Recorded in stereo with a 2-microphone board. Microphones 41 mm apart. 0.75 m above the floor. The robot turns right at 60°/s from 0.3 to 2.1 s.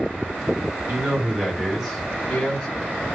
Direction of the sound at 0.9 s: 55° right.